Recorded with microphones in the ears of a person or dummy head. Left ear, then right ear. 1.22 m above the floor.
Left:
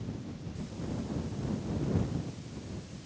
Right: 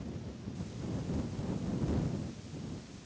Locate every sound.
Only background noise.